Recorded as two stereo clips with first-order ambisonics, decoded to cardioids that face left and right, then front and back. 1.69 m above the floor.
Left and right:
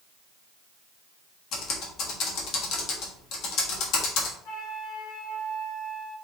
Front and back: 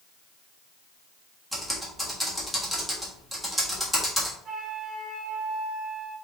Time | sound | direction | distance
1.5 | typing on a keyboard | 95° left | 1.4 m
4.5 | a flute | 125° left | 2.0 m